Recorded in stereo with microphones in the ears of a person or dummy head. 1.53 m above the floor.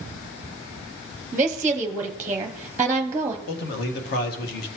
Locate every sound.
1.3 s a woman speaking: 15° right (ahead or behind), 0.7 m
3.5 s a man speaking: 55° left (ahead or behind), 1.4 m